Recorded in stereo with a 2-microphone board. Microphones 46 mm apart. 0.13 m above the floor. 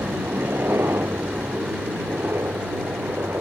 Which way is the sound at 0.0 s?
65° right (ahead or behind).